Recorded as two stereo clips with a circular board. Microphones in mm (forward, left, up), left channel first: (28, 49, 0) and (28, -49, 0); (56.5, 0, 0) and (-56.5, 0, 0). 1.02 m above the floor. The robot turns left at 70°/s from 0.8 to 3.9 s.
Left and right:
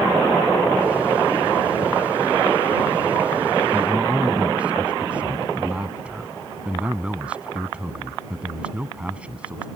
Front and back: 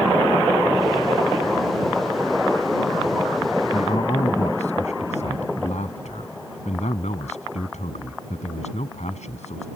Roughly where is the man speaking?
Ahead.